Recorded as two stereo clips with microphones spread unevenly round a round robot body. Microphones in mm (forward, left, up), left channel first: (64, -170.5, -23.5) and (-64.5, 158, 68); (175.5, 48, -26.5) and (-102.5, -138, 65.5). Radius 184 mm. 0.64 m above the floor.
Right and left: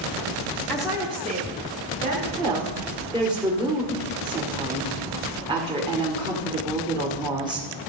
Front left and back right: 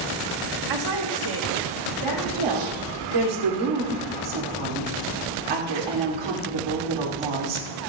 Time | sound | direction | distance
0.7 | a woman speaking | 140° right | 1.2 m
2.4 | a woman speaking | 165° right | 2.5 m